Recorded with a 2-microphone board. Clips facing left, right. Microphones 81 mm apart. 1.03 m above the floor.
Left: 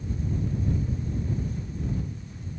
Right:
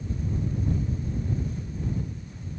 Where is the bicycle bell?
No bicycle bell in this recording.